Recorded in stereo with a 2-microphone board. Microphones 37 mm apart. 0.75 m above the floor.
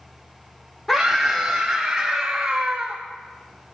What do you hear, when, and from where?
0.9 s a scream: 10° left (ahead or behind), 1.6 m; by 3.0 s 30° right (ahead or behind), 1.6 m